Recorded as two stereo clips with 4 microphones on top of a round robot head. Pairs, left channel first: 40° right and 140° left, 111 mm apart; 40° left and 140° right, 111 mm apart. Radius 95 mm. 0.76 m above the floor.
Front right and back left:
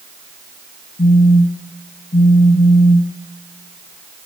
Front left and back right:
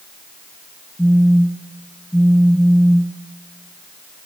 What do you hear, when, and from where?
1.0 s a phone buzzing: 40° right, 0.6 m